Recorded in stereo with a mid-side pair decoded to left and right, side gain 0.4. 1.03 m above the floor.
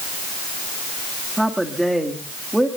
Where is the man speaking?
10° right, 2 m.